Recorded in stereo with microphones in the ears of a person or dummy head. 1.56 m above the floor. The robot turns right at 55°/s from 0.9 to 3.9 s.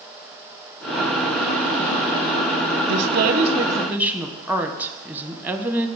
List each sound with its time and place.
2.8 s a woman speaking: 70° right, 1.3 m; by 5.9 s 10° right, 1.3 m